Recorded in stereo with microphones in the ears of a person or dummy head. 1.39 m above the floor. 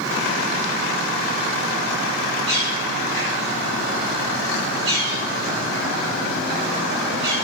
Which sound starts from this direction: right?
A bird, at 2.5 s.